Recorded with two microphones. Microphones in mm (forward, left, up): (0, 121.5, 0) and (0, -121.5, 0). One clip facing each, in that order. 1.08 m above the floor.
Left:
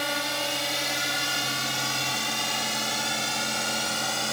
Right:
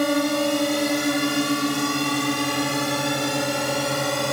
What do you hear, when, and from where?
0.0 s a drone: 55° right (ahead or behind); by 4.3 s 65° right (ahead or behind)